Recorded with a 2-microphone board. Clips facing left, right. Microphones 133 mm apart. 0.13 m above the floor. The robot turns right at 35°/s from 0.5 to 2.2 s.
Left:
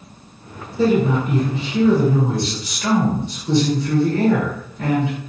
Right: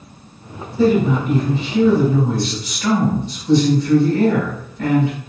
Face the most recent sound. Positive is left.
turn(degrees=20)  # may be behind; listen again after turning